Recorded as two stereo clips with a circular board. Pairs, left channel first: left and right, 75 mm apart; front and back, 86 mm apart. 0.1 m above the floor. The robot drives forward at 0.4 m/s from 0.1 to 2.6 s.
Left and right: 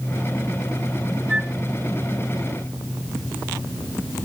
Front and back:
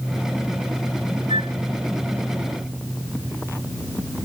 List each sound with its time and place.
1.3 s a flute: 165° right